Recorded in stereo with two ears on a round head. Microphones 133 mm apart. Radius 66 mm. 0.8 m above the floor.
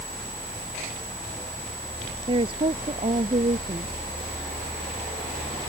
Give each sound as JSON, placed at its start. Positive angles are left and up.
{"t": 2.3, "sound": "a woman speaking", "side_deg": -35}